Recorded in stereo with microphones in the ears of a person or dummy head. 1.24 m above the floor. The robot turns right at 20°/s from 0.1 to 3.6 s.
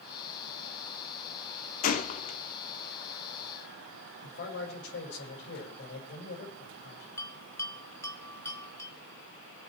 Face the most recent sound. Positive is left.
turn(degrees=20)  # may be behind; listen again after turning